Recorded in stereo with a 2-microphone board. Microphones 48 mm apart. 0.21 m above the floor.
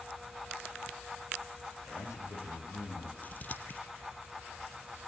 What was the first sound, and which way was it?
A man speaking, 80° left.